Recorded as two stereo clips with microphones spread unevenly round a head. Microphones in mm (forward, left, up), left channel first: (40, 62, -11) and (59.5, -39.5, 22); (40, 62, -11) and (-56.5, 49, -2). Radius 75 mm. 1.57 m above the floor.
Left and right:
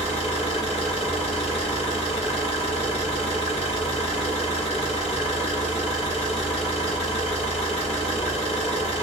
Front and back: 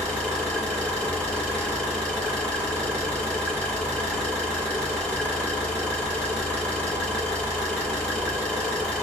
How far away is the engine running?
About 1.7 m.